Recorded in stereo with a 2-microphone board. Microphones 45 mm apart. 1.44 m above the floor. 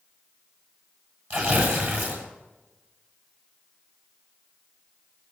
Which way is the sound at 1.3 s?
45° right (ahead or behind).